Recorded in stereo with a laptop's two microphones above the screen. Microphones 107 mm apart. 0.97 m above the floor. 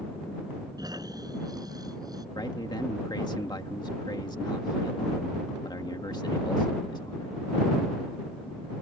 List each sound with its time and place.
0.8 s snoring: 35° right (ahead or behind)
2.4 s a man speaking: 40° left (ahead or behind)